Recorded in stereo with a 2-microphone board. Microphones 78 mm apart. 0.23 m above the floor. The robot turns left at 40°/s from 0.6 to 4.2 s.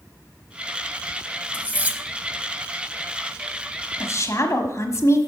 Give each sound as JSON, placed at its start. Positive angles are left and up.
{"t": 1.5, "sound": "cutlery clinking", "side_deg": -20, "distance_m": 0.7}
{"t": 4.0, "sound": "a woman speaking", "side_deg": 40, "distance_m": 1.2}